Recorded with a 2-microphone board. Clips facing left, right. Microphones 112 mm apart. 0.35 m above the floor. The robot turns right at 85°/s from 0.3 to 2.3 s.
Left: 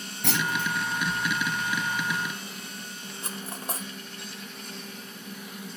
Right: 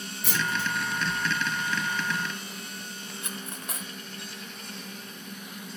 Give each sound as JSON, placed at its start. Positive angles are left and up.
{"t": 0.2, "sound": "a clunk", "azimuth_deg": 100, "distance_m": 1.1}
{"t": 3.2, "sound": "cutlery clinking", "side_deg": 35, "distance_m": 0.7}